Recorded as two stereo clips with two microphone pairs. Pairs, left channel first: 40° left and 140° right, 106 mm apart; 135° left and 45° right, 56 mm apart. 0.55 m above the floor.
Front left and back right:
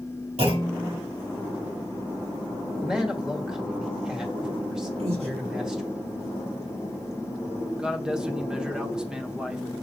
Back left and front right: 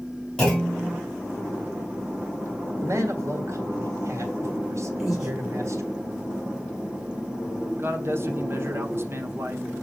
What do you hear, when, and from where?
0.4 s a clunk: 140° right, 4 m
2.8 s a man speaking: 55° right, 1.7 m
5.0 s breathing: 125° right, 2.5 m
7.8 s a man speaking: 55° right, 1.1 m